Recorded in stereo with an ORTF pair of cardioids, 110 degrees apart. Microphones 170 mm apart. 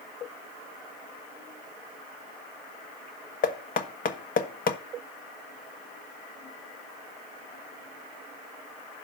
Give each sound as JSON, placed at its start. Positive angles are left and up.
{"t": 3.4, "sound": "knocking", "azimuth_deg": 55, "distance_m": 1.4}